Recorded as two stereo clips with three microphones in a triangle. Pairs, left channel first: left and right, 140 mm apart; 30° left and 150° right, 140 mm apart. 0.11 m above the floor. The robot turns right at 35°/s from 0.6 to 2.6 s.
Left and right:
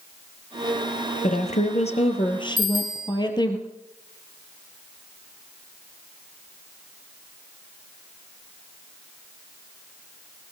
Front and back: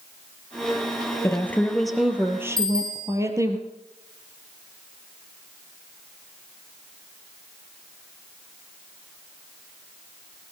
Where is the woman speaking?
95° left, 2.5 m; by 3.6 s 145° left, 2.5 m.